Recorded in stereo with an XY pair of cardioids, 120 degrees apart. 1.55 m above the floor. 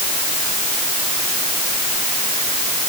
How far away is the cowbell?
No cowbell in this recording.